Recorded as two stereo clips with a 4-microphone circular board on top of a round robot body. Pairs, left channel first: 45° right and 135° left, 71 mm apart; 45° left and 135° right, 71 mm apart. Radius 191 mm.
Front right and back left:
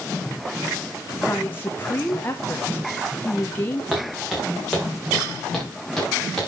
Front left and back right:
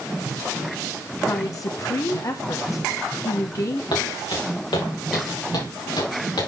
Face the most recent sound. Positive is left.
turn(degrees=40)